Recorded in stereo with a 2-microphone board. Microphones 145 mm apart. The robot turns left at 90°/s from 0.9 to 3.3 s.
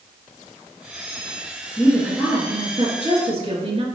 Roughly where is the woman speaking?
Ahead left.